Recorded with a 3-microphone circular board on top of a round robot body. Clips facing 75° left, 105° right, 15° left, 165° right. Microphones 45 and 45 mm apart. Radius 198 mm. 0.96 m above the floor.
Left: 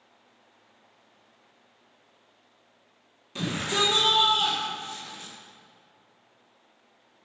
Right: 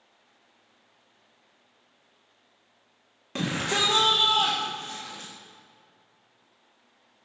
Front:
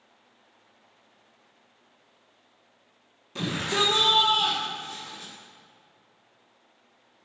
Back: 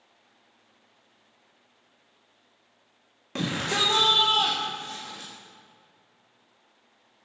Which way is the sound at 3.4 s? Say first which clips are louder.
Right 1 dB, even; 140° right.